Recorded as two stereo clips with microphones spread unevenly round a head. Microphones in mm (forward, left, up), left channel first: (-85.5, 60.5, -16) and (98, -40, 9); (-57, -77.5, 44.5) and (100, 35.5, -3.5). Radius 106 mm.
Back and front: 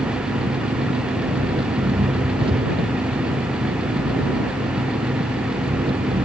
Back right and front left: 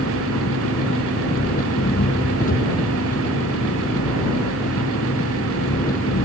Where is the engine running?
95° right.